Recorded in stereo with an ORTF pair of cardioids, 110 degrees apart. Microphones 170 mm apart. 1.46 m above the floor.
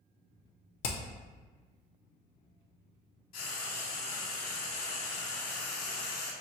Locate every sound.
0.8 s hammering: 60° left, 0.7 m
3.3 s frying: 60° left, 1.4 m